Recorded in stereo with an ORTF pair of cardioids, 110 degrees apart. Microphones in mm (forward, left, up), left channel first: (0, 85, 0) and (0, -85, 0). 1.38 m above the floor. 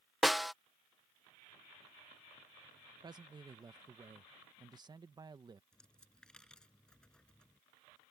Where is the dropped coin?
5° left.